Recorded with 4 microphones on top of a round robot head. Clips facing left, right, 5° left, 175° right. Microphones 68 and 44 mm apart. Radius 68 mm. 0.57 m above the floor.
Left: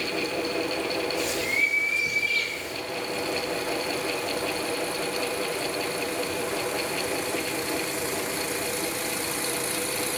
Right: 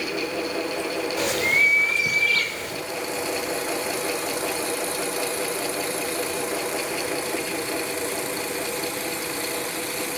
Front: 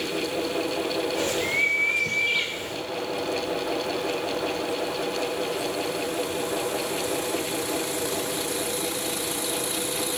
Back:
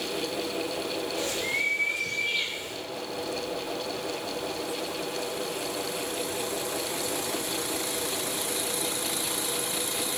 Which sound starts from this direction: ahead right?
A bird, at 1.2 s.